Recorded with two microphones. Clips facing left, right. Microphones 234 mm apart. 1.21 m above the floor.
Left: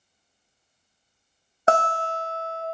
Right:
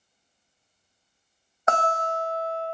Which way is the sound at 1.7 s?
35° left (ahead or behind).